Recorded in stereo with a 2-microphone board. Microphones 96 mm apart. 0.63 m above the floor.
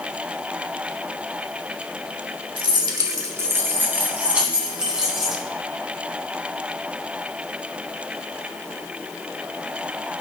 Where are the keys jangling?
60° right (ahead or behind), 1.4 m; by 5.4 s 5° right (ahead or behind), 4.5 m.